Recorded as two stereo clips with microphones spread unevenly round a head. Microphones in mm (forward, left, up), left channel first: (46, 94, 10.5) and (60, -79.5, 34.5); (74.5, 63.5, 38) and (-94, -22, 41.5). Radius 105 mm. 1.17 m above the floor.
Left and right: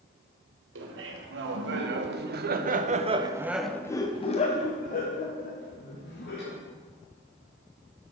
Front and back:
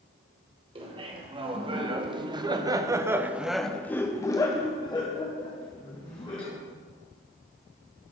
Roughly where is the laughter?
Right.